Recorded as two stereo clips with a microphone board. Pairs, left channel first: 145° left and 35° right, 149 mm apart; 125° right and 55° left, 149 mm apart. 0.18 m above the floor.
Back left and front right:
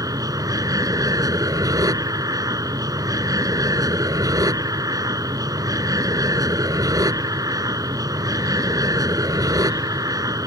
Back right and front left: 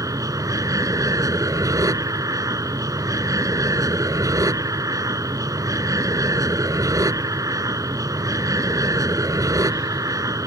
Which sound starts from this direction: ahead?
An aircraft, at 0.0 s.